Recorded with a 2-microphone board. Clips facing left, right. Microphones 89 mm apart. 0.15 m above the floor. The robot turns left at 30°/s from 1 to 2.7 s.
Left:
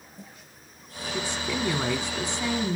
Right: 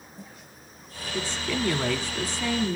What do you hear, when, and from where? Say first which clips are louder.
1.1 s a woman speaking: right 1 dB; 15° left (ahead or behind), 1.1 m; by 2.8 s 20° left (ahead or behind), 1.1 m